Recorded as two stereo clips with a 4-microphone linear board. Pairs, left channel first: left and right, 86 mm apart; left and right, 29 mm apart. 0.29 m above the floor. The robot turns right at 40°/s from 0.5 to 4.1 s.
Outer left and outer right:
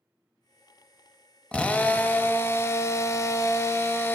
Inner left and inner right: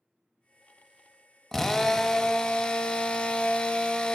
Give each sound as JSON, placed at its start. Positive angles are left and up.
{"t": 1.5, "sound": "a drill", "azimuth_deg": 20, "distance_m": 0.7}